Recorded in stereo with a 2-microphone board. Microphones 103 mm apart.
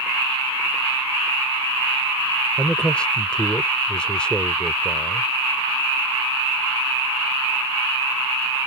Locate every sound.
2.6 s a man speaking: 10° left (ahead or behind)